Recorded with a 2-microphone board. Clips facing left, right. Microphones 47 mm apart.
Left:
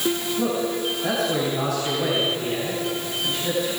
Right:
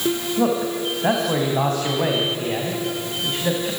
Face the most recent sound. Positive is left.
turn(degrees=-35)  # may be behind; listen again after turning